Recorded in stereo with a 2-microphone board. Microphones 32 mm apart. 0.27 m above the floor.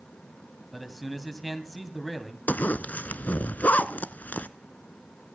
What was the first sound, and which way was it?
A man speaking, centre (ahead or behind).